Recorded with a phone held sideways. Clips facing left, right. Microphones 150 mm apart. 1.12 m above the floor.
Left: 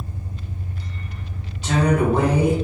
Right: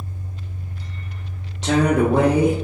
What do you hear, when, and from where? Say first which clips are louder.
0.0 s an engine running: left 1 dB; 50° left (ahead or behind), 1.4 m
1.6 s a woman speaking: right 2 dB; 85° right, 0.5 m